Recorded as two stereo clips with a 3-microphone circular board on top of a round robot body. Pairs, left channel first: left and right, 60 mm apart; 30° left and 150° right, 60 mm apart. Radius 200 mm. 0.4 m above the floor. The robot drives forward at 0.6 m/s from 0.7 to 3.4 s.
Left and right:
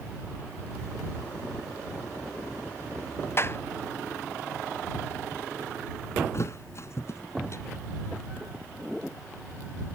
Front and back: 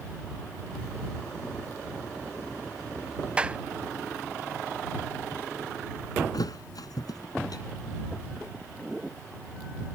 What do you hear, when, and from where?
3.4 s a clap: 140° left
6.3 s a thud: 45° left